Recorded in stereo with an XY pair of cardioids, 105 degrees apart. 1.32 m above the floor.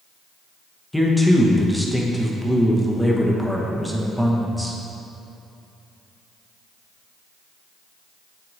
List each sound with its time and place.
0.9 s a man speaking: 5° left, 1.0 m